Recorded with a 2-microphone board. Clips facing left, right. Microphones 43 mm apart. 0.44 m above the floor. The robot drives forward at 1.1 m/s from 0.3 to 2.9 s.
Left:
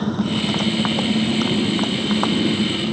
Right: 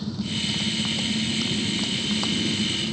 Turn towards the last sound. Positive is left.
turn(degrees=40)  # may be behind; listen again after turning